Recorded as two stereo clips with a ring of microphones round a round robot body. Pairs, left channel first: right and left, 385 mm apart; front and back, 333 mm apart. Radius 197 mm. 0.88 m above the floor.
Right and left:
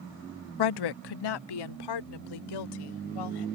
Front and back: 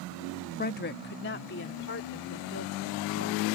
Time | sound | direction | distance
0.6 | a woman speaking | 65° right | ?